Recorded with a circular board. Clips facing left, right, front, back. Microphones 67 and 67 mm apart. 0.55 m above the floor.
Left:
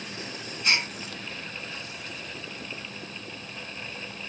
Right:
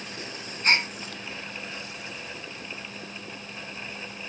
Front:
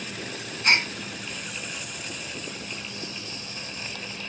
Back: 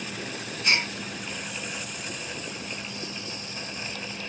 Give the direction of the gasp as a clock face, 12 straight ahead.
1 o'clock.